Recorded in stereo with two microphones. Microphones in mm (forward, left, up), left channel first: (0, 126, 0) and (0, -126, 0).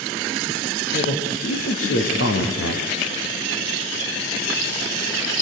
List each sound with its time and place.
0.9 s a man speaking: 60° left (ahead or behind), 4.5 m